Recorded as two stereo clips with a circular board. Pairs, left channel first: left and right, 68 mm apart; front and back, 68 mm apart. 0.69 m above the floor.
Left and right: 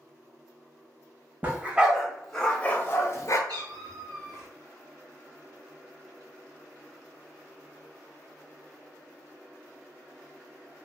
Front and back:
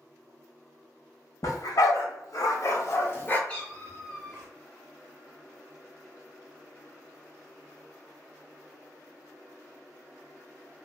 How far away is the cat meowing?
About 1.1 m.